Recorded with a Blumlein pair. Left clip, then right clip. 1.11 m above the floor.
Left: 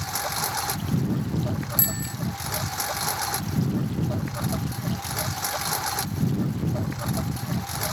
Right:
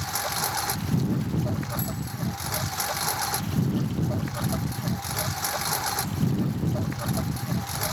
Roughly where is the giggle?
I don't hear a giggle.